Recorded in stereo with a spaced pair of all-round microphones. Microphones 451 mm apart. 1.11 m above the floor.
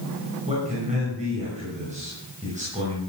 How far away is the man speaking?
About 6 m.